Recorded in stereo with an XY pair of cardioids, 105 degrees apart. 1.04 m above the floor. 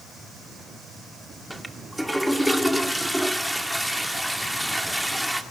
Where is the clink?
No clink in this recording.